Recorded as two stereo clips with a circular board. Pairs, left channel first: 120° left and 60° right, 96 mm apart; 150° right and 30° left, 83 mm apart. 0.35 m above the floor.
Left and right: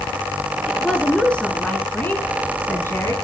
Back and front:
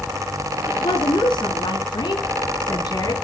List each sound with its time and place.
0.7 s a woman speaking: 155° right, 3.5 m; by 3.1 s straight behind, 2.5 m